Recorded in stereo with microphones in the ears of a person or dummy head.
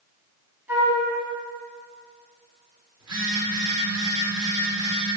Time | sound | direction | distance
0.7 | a flute | 15° right (ahead or behind) | 4.5 m
3.0 | a phone buzzing | 25° right (ahead or behind) | 3 m